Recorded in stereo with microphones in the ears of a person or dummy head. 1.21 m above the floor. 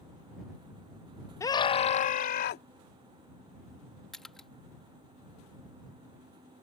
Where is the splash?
5° left (ahead or behind).